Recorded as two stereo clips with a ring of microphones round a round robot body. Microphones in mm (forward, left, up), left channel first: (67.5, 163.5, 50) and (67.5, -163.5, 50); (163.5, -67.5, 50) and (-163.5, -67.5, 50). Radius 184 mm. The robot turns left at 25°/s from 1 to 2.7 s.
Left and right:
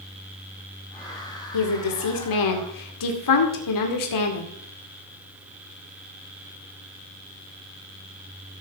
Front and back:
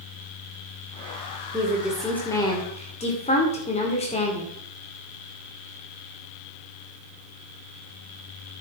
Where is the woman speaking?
100° left, 2.5 m; by 4.5 s 70° left, 2.5 m.